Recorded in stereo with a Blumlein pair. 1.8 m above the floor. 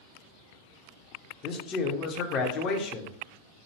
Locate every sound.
1.4 s a man speaking: 30° left, 0.7 m